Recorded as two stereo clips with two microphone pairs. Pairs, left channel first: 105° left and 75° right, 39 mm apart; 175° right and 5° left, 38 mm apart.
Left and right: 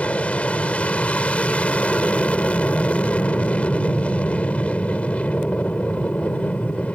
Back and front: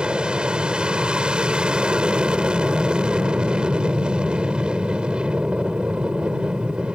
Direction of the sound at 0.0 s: 60° left.